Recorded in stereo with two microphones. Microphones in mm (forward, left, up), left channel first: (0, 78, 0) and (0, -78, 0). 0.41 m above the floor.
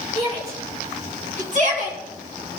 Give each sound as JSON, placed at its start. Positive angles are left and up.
{"t": 0.1, "sound": "a shout", "side_deg": -45, "distance_m": 5.0}